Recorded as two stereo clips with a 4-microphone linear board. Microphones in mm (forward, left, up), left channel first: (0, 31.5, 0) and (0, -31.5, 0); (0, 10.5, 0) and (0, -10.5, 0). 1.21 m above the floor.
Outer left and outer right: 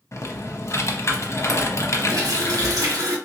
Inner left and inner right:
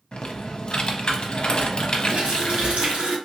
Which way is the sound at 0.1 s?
50° left (ahead or behind).